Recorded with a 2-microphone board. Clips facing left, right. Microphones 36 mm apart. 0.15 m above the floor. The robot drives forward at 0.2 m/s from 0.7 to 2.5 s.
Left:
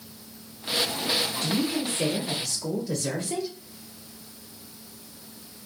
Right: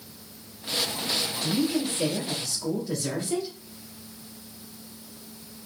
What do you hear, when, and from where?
1.4 s a woman speaking: 5° right (ahead or behind), 1.2 m